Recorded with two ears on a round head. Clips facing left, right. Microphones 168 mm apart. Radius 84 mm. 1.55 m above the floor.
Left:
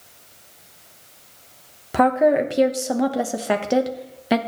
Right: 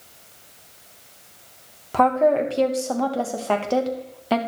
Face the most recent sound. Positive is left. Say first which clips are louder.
# left 1 dB
turn(degrees=15)  # may be behind; listen again after turning